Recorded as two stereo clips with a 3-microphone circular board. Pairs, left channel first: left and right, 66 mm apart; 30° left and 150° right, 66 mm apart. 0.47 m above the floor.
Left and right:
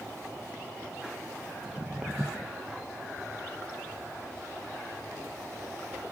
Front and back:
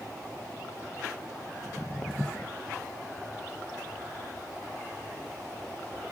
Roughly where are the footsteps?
Ahead right.